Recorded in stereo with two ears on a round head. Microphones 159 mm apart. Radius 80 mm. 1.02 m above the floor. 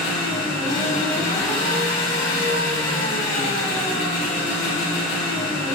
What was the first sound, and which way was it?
An engine running, 50° left (ahead or behind).